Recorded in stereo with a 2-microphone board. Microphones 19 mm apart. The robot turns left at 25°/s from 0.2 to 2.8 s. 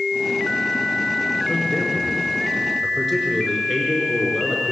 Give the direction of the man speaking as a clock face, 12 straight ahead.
11 o'clock.